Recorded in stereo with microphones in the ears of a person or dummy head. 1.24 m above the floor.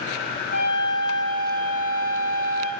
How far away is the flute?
About 0.8 m.